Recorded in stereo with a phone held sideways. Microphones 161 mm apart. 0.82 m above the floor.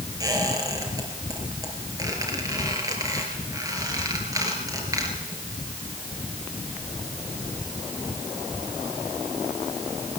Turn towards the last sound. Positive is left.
turn(degrees=-20)  # may be behind; listen again after turning